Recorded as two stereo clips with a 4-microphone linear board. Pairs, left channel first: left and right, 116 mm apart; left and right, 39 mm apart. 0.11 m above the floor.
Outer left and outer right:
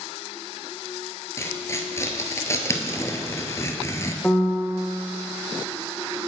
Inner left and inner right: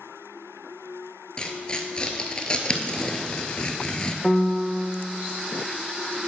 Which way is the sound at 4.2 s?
10° left (ahead or behind).